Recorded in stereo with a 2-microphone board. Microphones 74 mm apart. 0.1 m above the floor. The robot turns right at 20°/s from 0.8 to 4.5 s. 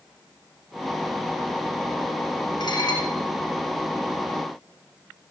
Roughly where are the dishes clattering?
Left.